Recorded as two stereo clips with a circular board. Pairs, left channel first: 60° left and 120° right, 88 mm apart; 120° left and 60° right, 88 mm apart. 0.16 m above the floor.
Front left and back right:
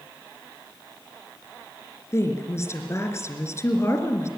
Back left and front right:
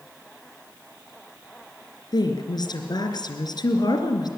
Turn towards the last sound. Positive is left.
turn(degrees=110)